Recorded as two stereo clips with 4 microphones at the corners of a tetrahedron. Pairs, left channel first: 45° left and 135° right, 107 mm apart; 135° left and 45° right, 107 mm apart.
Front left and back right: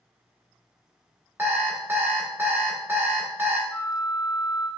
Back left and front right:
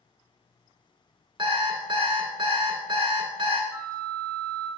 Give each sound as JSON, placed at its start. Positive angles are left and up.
{"t": 1.4, "sound": "an alarm clock", "azimuth_deg": -65, "distance_m": 0.9}
{"t": 3.7, "sound": "a flute", "azimuth_deg": -5, "distance_m": 0.6}